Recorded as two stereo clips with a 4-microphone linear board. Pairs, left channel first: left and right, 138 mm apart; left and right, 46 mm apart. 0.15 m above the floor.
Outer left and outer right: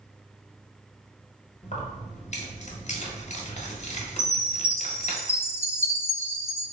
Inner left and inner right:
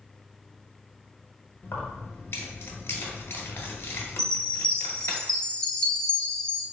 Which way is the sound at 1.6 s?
55° left (ahead or behind).